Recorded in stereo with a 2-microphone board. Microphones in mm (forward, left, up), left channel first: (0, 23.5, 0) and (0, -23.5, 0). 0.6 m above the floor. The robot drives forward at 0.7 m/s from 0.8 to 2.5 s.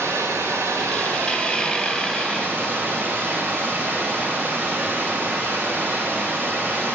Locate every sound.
0.0 s running water: 75° right (ahead or behind), 1.7 m; by 7.0 s 50° right (ahead or behind), 2 m